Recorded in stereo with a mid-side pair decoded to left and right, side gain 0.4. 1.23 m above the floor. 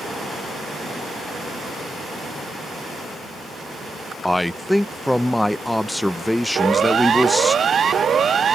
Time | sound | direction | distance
4.2 | a man speaking | 10° left | ?
6.5 | a siren | 55° right | ?